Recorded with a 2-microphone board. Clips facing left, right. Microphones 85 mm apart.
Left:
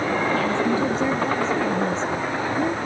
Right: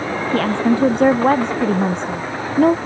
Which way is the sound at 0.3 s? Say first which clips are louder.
Right 4 dB; 60° right (ahead or behind).